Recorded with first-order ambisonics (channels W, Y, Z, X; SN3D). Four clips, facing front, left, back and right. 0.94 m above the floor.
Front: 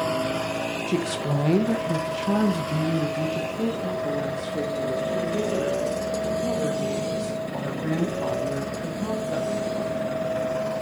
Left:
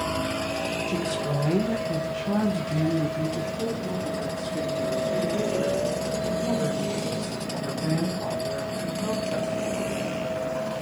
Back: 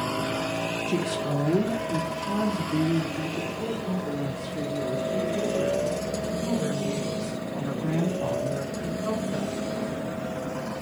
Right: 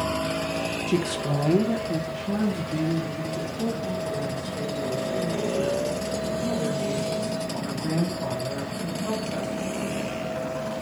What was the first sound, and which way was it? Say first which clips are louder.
A woman speaking: right 2 dB, front 2 dB; 75° right.